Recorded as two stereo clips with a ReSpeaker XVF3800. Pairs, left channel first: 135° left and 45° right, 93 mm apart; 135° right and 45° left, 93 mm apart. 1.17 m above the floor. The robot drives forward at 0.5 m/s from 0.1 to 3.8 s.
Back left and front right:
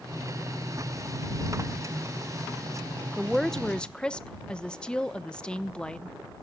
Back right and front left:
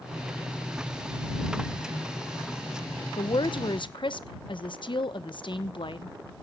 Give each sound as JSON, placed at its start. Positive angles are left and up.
{"t": 3.2, "sound": "a woman speaking", "azimuth_deg": -135, "distance_m": 0.9}